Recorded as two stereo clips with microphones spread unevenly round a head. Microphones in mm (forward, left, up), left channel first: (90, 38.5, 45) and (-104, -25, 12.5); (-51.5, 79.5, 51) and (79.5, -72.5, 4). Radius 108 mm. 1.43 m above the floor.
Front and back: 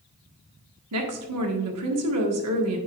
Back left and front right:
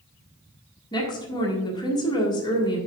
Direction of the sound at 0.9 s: 160° right.